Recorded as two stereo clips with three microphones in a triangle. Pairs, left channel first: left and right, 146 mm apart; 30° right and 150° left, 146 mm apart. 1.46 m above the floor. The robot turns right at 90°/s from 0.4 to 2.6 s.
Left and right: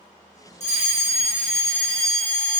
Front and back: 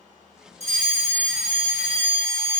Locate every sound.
0.6 s a fire alarm: 120° left, 1.3 m; by 2.6 s 60° right, 1.3 m